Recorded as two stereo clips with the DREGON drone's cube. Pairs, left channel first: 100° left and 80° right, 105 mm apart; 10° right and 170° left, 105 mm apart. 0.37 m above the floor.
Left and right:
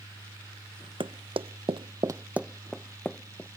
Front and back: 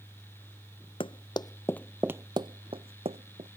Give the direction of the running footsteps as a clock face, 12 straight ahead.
1 o'clock.